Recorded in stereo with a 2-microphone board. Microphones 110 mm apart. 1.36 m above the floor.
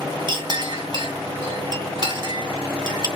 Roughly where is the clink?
Right.